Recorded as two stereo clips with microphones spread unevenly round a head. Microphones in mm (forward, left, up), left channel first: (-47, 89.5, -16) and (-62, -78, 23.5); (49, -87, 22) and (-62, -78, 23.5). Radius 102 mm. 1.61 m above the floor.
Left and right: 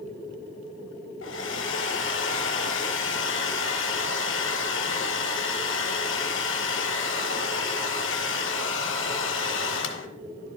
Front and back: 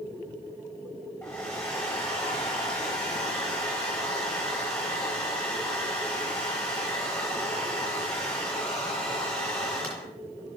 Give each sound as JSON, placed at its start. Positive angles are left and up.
{"t": 1.2, "sound": "a hair dryer", "azimuth_deg": 80, "distance_m": 0.9}